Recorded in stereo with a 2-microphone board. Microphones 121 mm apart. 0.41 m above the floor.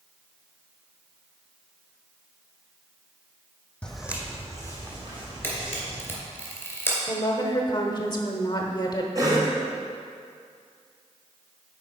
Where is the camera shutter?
20° left (ahead or behind), 2.5 m.